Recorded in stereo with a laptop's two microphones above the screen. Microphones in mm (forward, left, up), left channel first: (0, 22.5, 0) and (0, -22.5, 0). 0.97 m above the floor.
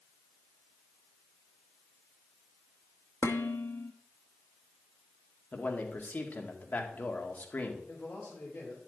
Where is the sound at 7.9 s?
45° left (ahead or behind), 4 m.